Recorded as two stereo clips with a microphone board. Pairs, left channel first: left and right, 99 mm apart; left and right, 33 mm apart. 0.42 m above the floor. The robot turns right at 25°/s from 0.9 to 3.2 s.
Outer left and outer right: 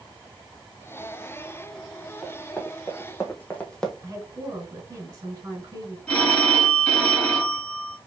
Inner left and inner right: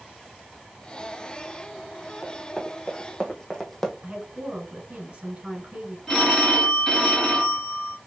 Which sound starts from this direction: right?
A woman speaking, at 4.0 s.